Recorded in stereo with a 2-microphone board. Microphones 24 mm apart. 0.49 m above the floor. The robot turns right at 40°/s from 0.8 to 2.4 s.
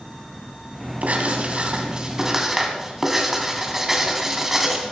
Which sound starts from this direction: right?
Writing, at 1.0 s.